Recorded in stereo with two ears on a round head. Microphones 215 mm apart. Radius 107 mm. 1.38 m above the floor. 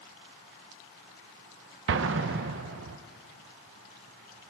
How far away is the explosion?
About 0.7 m.